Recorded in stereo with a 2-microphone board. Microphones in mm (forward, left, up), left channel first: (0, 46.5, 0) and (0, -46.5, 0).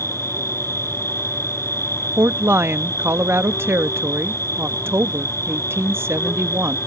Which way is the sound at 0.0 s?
30° left (ahead or behind).